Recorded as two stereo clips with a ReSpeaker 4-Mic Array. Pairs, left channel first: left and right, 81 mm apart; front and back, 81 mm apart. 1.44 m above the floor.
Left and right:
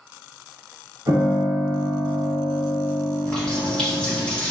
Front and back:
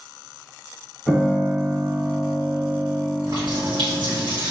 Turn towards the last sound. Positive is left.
turn(degrees=170)